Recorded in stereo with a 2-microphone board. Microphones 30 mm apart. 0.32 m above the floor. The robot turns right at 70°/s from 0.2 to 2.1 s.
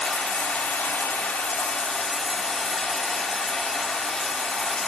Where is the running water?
50° left, 1.5 m; by 4.9 s straight behind, 1.5 m.